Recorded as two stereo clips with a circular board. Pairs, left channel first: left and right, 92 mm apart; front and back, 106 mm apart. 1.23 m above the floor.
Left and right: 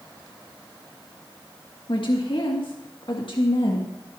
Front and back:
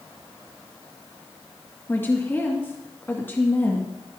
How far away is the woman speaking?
About 2 m.